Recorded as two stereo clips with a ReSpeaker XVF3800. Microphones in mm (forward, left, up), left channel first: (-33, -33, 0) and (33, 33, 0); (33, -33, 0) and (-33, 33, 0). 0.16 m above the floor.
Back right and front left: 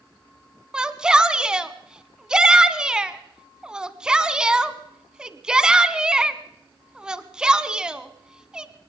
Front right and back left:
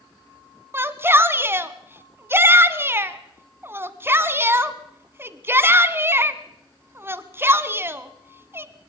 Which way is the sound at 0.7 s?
115° left.